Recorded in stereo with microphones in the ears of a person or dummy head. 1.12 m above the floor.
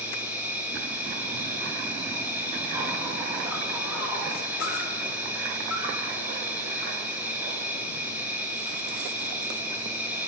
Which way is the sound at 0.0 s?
10° right (ahead or behind).